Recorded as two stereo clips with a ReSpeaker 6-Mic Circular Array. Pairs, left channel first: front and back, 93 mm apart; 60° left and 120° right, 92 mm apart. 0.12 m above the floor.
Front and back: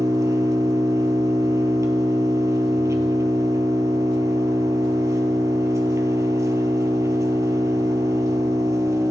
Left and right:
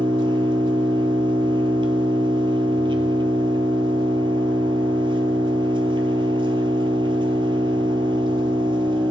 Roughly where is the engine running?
Behind right.